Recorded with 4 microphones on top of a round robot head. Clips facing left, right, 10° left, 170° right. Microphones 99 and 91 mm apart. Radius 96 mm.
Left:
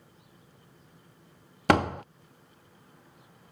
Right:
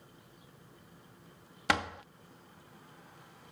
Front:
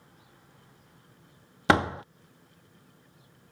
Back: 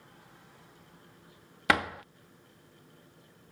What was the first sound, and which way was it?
A door slam, 65° left.